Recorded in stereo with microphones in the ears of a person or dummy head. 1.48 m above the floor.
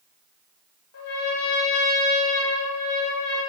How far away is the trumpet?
About 1.1 m.